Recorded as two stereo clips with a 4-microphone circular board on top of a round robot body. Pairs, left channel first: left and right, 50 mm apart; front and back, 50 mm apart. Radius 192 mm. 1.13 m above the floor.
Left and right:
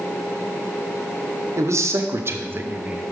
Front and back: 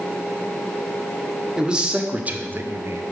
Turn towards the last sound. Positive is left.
turn(degrees=-160)